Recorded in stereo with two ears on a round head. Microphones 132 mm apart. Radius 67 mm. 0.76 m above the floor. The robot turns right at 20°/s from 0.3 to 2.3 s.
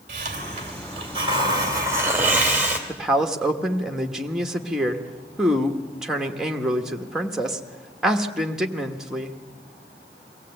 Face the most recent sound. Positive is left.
turn(degrees=-5)  # may be behind; listen again after turning